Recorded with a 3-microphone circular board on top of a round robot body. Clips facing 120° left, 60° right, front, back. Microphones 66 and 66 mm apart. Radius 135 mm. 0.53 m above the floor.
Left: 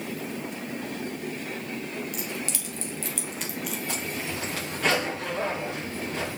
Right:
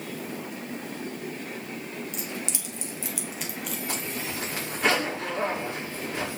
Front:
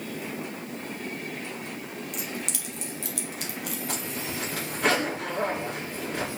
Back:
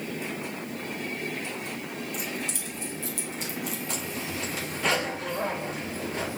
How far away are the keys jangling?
About 1.8 m.